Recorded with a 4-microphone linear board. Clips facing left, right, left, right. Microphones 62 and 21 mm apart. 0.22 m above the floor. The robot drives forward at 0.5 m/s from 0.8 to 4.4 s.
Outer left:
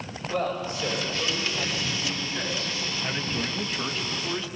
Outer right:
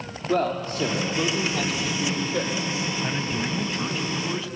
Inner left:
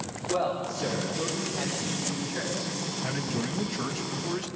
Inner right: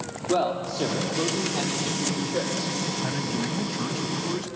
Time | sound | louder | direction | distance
0.3 | a man speaking | outer right 4 dB, inner right 4 dB | 65° right (ahead or behind) | 7 m
3.0 | a man speaking | outer right 3 dB, inner right 3 dB | 5° right (ahead or behind) | 1.6 m